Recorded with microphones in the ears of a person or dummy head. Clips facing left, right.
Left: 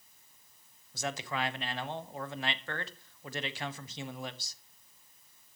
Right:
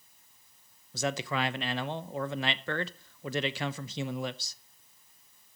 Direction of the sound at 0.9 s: 60° right (ahead or behind).